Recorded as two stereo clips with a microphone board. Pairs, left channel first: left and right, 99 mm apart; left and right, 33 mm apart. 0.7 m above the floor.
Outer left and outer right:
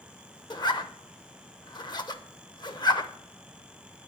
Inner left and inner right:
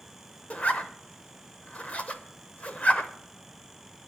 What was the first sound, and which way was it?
A zipper, 45° left (ahead or behind).